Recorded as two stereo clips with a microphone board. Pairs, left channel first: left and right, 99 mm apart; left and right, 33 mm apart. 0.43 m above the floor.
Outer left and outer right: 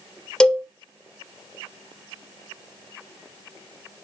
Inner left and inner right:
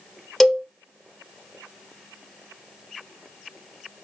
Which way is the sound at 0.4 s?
10° left (ahead or behind).